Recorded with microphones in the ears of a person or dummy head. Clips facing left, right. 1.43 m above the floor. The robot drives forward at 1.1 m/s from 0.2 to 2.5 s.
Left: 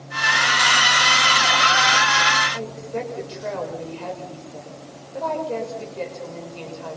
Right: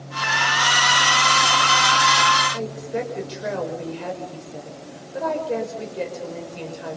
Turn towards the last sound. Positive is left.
turn(degrees=-15)  # may be behind; listen again after turning